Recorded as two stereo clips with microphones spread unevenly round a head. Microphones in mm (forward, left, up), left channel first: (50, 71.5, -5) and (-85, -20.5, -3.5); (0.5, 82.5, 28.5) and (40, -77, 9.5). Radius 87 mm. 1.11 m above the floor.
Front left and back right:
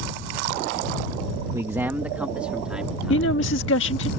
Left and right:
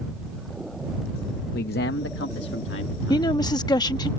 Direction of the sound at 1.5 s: 145° left.